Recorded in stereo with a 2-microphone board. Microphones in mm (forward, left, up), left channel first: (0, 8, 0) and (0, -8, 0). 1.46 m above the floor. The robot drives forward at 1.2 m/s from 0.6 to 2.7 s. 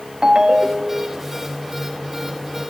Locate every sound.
0.2 s a ringtone: 65° right (ahead or behind), 1.7 m; by 1.2 s 45° right (ahead or behind), 2 m